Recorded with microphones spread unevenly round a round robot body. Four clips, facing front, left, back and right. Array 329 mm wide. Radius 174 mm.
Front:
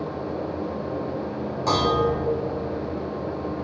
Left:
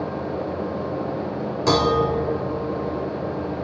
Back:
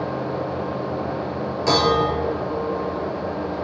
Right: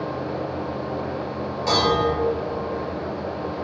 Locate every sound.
1.7 s dishes clattering: 105° left, 1.2 m